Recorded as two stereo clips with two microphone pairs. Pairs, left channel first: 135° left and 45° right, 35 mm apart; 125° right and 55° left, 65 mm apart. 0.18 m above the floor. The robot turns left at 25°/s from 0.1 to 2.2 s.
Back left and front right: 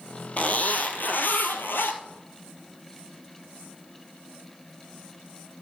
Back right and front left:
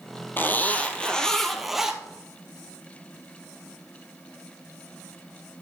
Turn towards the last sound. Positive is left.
turn(degrees=130)